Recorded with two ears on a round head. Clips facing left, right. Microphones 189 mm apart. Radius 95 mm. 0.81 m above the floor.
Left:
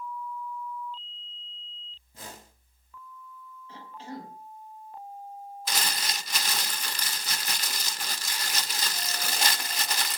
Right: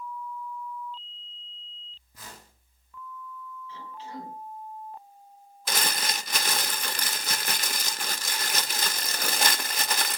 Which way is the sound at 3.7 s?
45° left (ahead or behind).